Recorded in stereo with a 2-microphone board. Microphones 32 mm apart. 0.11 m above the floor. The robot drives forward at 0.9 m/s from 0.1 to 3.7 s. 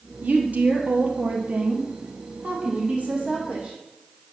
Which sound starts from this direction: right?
A woman speaking, at 0.2 s.